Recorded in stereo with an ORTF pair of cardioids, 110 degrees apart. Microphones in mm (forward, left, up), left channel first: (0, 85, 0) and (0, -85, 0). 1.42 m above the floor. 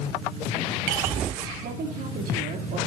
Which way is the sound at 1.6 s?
60° right.